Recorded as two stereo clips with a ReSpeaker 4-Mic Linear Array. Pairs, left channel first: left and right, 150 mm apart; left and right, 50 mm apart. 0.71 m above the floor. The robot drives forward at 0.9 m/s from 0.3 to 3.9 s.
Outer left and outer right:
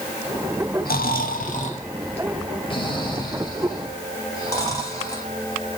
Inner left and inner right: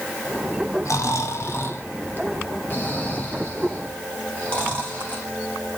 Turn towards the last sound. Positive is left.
turn(degrees=25)  # may be behind; listen again after turning